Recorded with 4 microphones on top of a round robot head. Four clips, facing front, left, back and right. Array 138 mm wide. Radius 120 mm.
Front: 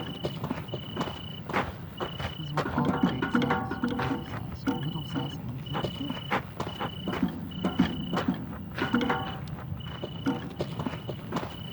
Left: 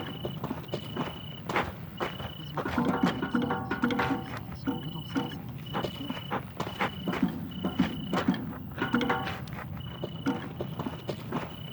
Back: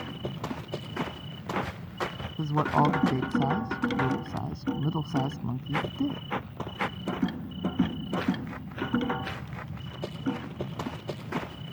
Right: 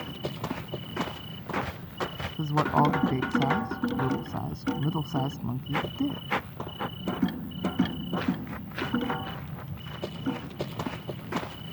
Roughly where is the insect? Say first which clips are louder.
Right 1 dB, front 1 dB; ahead.